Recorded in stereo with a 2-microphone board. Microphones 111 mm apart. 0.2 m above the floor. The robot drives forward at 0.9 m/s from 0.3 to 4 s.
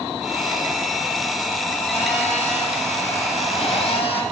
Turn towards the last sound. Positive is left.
turn(degrees=60)  # may be behind; listen again after turning